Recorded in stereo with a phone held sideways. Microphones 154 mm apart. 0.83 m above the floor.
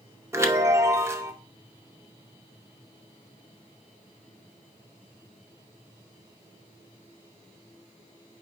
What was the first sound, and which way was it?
A chime, 20° right (ahead or behind).